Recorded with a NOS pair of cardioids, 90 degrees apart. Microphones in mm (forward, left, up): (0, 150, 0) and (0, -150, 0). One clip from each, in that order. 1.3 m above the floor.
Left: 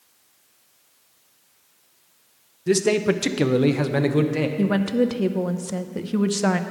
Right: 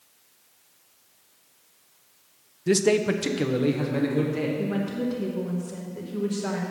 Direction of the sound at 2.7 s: 5° right.